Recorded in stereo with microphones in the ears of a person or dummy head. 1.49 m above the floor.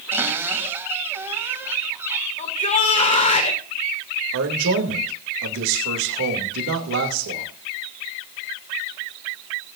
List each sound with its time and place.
0.1 s a cupboard door: 15° right (ahead or behind), 2.5 m
2.4 s a shout: 35° left (ahead or behind), 2.5 m
4.3 s a man speaking: 80° right, 2.5 m